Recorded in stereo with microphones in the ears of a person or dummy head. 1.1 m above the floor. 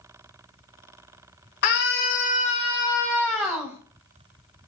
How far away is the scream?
About 1.8 m.